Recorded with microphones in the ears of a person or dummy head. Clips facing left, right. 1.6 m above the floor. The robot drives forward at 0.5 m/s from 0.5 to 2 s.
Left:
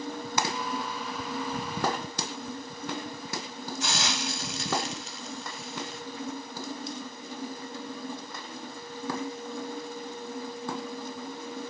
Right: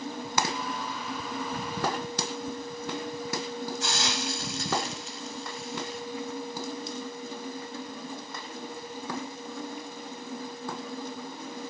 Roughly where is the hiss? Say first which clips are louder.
Right 1 dB; left.